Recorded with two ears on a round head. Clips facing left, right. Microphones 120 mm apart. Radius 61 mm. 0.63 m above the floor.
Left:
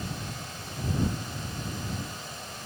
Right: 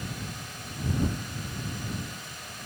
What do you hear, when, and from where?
Only background noise.